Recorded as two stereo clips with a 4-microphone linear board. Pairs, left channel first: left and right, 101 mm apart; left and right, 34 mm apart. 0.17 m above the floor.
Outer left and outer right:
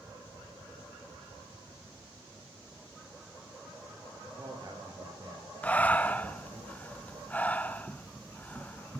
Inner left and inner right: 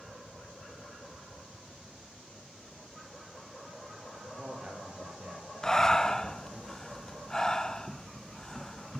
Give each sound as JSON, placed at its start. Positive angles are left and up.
{"t": 4.2, "sound": "a man speaking", "side_deg": -35, "distance_m": 4.5}
{"t": 5.6, "sound": "breathing", "side_deg": 15, "distance_m": 0.7}